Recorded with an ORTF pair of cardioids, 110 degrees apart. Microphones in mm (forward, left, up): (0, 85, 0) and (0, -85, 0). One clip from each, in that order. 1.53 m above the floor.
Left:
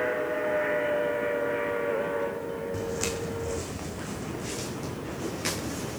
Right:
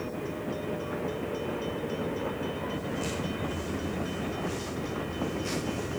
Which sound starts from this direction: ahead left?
Footsteps, at 2.7 s.